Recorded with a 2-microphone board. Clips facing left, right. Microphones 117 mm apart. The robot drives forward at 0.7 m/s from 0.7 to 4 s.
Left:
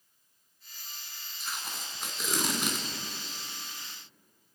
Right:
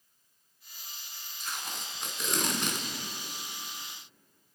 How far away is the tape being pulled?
About 1.4 m.